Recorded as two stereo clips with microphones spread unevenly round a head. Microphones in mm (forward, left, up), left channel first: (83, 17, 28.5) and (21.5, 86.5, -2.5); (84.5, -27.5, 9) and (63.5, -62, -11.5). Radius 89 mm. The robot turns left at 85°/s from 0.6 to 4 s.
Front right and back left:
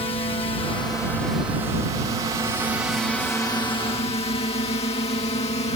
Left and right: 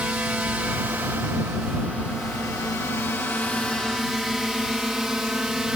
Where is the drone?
80° right; by 5.8 s 50° right.